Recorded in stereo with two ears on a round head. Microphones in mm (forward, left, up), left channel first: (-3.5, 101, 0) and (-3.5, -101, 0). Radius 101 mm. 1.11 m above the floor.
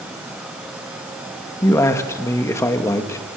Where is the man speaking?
15° left (ahead or behind), 1.7 m.